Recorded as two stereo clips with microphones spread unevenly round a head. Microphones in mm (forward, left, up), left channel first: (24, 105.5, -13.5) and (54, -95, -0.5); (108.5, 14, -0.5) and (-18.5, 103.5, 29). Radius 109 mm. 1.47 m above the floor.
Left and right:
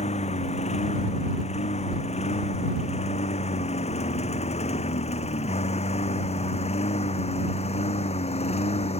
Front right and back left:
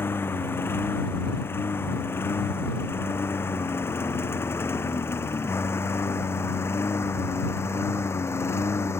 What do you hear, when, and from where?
0.0 s a lawn mower: 40° left